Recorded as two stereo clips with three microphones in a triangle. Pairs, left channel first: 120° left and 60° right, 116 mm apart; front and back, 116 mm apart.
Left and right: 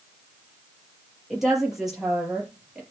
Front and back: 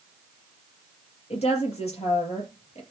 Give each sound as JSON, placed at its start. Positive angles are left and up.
{"t": 1.3, "sound": "a woman speaking", "azimuth_deg": 25, "distance_m": 6.5}